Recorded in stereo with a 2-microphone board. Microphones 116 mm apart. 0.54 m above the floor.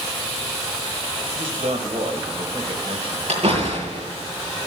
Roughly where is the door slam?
Right.